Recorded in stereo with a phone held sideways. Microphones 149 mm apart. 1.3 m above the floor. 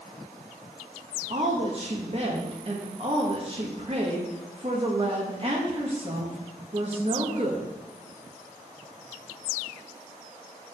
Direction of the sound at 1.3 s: 40° right (ahead or behind).